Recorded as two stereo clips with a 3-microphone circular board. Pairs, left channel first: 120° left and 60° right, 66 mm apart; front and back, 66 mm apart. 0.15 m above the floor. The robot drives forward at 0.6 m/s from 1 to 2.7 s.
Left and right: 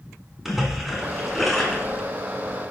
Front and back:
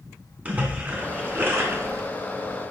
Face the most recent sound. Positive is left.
turn(degrees=-165)